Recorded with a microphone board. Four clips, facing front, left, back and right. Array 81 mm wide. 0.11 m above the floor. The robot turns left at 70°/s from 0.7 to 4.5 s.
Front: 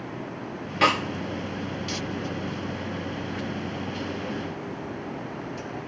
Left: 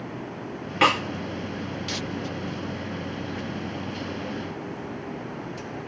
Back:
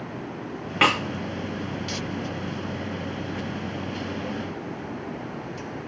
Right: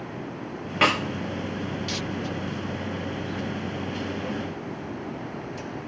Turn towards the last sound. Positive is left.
turn(degrees=-75)